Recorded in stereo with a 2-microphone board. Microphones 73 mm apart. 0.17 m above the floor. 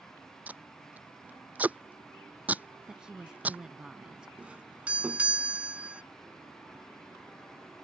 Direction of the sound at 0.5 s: 20° right (ahead or behind).